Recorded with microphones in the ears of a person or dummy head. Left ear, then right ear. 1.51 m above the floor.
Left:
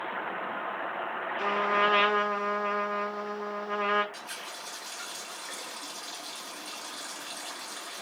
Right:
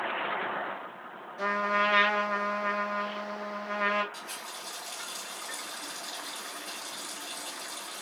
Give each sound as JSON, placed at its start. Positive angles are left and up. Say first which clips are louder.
{"t": 1.4, "sound": "a trumpet", "louder": "left 1 dB", "side_deg": -20, "distance_m": 1.7}
{"t": 4.1, "sound": "a running tap", "louder": "left 1 dB", "side_deg": 30, "distance_m": 1.6}